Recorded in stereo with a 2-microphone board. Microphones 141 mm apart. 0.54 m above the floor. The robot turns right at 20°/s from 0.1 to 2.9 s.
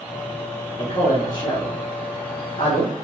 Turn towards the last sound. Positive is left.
turn(degrees=40)  # may be behind; listen again after turning